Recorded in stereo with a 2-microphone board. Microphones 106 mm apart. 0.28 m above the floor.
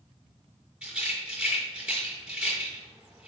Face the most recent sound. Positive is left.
turn(degrees=-5)  # may be behind; listen again after turning